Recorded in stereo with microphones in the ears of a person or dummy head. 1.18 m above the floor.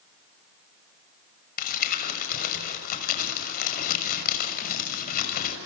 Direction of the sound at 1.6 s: 60° left (ahead or behind).